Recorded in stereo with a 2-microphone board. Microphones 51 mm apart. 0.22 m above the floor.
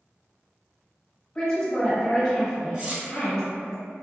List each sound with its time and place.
1.4 s a man speaking: 15° left (ahead or behind), 1.0 m
2.7 s cutlery clinking: 25° right (ahead or behind), 1.1 m